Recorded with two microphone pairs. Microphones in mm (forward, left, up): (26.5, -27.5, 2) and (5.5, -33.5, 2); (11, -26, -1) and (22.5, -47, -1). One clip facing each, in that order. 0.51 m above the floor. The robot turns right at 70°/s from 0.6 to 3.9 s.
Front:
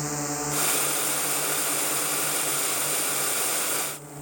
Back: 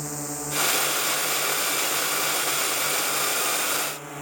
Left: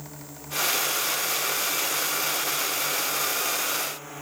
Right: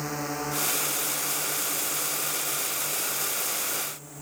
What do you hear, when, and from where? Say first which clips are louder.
0.0 s a drone: front 3 dB, right 12 dB; 50° right; by 4.2 s 165° left